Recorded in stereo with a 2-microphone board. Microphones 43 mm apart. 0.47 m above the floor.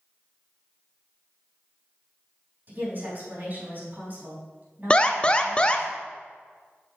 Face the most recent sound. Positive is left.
turn(degrees=20)  # may be behind; listen again after turning